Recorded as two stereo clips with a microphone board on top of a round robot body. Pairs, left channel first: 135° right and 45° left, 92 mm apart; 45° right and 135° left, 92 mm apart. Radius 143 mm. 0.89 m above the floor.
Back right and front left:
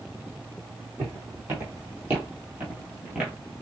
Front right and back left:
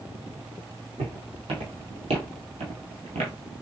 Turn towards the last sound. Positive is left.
turn(degrees=125)